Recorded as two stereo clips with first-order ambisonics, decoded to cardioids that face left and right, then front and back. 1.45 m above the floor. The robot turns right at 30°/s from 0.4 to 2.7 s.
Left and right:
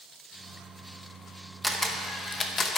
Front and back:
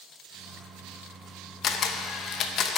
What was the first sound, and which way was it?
A camera shutter, straight ahead.